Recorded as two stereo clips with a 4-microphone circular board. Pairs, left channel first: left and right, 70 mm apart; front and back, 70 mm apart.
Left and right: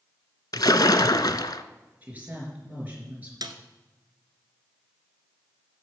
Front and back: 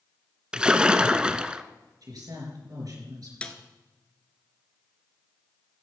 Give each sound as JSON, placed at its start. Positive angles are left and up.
{"t": 0.5, "sound": "a splash", "azimuth_deg": 105, "distance_m": 0.6}
{"t": 2.0, "sound": "a woman speaking", "azimuth_deg": -155, "distance_m": 4.0}
{"t": 3.4, "sound": "a snare drum", "azimuth_deg": -70, "distance_m": 1.0}